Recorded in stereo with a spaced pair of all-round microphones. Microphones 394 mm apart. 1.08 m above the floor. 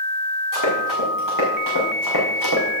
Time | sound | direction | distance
0.5 | running footsteps | 50° left (ahead or behind) | 5 m